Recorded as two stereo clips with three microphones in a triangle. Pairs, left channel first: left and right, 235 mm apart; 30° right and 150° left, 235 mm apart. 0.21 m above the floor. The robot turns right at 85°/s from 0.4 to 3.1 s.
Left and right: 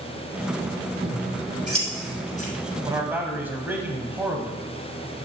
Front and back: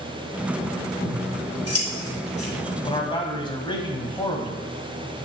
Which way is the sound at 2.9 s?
45° right.